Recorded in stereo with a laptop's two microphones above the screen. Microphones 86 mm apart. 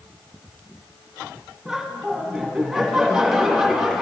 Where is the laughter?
5° right (ahead or behind), 1.7 m.